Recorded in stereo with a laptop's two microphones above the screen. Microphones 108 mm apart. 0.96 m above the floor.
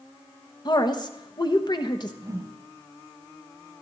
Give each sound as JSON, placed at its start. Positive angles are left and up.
{"t": 0.7, "sound": "a woman speaking", "side_deg": 40, "distance_m": 0.9}
{"t": 2.2, "sound": "a whoosh", "side_deg": -30, "distance_m": 1.2}